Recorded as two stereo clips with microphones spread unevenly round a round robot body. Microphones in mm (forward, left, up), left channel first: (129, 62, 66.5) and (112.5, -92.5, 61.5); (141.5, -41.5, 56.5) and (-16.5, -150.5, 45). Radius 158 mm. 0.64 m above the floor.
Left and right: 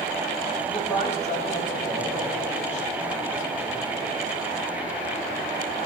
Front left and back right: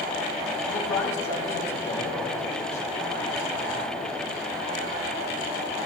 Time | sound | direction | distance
0.7 | a man speaking | 40° left | 4.5 m